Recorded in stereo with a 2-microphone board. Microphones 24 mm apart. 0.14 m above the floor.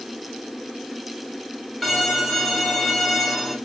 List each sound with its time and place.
1.8 s a violin: centre (ahead or behind), 1.5 m